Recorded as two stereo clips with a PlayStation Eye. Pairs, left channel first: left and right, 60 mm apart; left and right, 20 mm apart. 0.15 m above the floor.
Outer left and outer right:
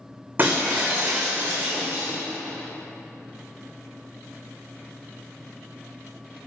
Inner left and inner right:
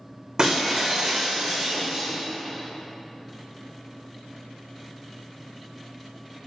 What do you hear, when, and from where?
0.4 s breaking glass: 35° right (ahead or behind), 2.0 m